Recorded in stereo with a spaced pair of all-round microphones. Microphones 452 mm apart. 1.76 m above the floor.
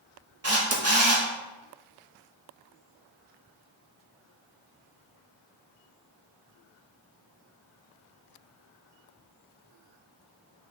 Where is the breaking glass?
No breaking glass in this recording.